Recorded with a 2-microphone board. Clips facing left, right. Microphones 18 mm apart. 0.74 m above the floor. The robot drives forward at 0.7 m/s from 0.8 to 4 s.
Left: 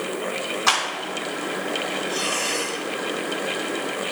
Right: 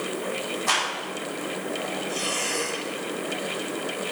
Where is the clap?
65° left (ahead or behind), 6 m.